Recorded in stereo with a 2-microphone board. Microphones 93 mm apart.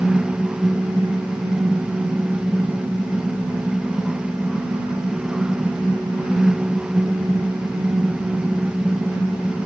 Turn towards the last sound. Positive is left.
No sound to turn to.